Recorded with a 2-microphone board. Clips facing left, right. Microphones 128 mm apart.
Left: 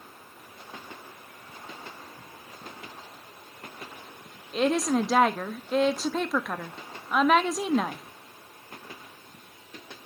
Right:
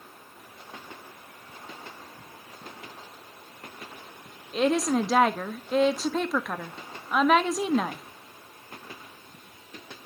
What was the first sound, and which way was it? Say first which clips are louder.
A woman speaking: right 1 dB; centre (ahead or behind).